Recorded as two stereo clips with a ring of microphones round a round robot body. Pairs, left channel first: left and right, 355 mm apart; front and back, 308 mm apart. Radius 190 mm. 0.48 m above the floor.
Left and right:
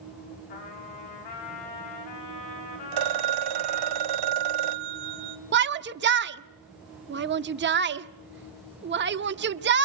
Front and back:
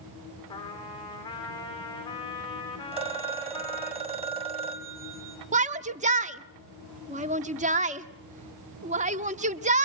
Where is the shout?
130° right, 1.0 m.